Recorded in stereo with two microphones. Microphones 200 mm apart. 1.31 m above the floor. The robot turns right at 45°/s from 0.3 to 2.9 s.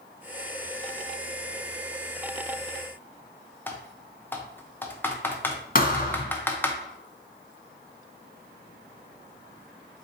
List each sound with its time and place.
3.7 s typing on a keyboard: 10° left (ahead or behind), 0.5 m
5.8 s a thud: 45° left (ahead or behind), 0.8 m